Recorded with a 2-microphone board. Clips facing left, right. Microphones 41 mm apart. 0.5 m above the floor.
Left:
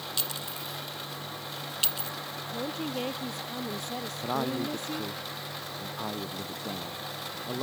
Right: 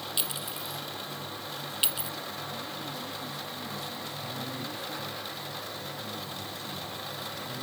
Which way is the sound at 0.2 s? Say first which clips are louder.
Even; 15° right (ahead or behind).